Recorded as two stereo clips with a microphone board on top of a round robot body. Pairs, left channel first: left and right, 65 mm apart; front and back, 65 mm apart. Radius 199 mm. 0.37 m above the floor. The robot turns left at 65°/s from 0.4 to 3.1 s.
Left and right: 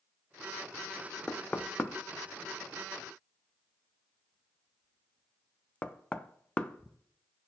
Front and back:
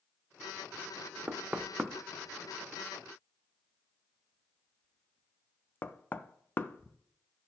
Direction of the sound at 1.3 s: 150° left.